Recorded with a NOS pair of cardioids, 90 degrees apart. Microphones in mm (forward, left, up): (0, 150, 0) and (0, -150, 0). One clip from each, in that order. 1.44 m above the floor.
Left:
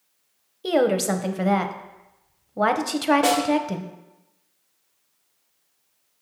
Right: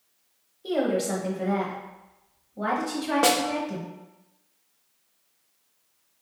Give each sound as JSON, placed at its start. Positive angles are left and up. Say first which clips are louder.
{"t": 0.6, "sound": "a woman speaking", "louder": "left 5 dB", "azimuth_deg": 55, "distance_m": 0.6}
{"t": 3.2, "sound": "a snare drum", "louder": "left 1 dB", "azimuth_deg": -35, "distance_m": 0.8}